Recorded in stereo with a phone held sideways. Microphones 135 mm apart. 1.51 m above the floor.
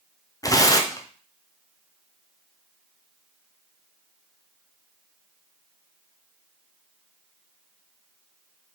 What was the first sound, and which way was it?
Tearing paper, 25° left (ahead or behind).